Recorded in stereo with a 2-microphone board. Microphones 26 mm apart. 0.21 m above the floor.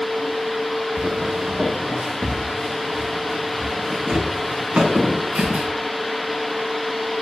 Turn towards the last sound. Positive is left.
turn(degrees=-70)  # may be behind; listen again after turning